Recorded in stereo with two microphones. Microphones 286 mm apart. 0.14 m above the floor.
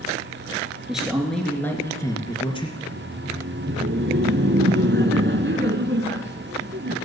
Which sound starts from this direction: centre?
A man speaking, at 0.9 s.